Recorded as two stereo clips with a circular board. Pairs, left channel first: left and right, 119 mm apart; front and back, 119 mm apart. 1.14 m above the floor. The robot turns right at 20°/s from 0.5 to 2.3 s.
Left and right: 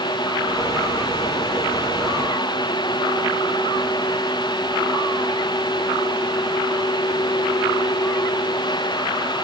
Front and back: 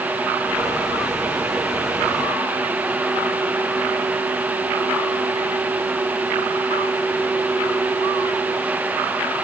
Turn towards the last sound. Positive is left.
No sound to turn to.